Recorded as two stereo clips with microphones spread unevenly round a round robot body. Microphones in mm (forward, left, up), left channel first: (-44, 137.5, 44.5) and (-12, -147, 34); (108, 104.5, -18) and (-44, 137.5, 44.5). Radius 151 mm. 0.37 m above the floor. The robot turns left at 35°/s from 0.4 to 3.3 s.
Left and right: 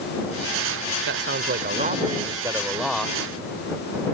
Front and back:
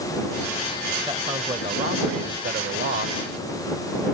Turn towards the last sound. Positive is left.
turn(degrees=175)